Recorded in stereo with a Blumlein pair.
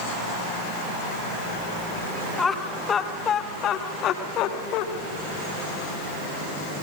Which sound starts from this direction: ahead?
Laughter, at 2.4 s.